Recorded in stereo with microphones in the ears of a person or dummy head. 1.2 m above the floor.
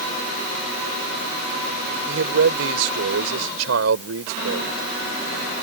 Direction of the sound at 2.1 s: 75° right (ahead or behind).